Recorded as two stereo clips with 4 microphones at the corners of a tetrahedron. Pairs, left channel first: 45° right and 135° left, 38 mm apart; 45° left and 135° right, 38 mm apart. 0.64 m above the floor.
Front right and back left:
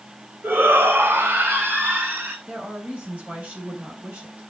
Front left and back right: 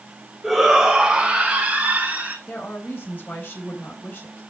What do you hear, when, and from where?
0.4 s a shout: 135° left, 3.5 m; by 2.4 s 170° left, 5 m
2.5 s a woman speaking: 85° left, 3.5 m